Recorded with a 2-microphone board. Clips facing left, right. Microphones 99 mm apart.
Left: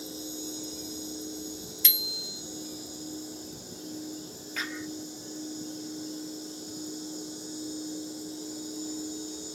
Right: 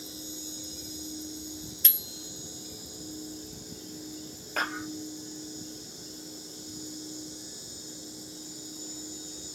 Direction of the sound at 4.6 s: 50° right (ahead or behind).